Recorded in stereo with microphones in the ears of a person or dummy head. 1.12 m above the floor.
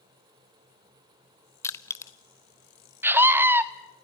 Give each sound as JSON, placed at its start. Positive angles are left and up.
{"t": 1.6, "sound": "crushing", "side_deg": 20, "distance_m": 0.7}
{"t": 3.0, "sound": "a scream", "side_deg": -10, "distance_m": 1.0}